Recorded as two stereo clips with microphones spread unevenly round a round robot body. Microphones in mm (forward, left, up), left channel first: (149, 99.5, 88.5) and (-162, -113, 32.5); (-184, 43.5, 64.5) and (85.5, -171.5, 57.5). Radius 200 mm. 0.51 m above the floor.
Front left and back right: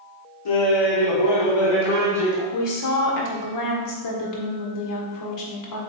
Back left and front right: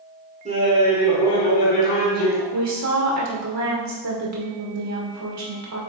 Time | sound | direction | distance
0.5 | laughter | 30° left | 2.0 m
2.5 | a woman speaking | 5° right | 1.8 m